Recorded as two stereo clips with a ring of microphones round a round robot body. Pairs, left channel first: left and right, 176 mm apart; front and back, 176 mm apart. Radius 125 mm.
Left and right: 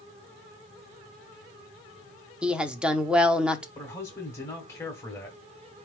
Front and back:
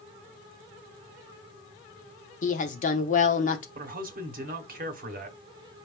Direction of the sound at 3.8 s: 165° left.